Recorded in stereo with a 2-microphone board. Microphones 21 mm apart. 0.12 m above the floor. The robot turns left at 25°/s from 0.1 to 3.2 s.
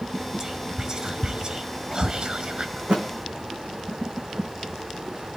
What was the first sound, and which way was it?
Whispering, 25° right (ahead or behind).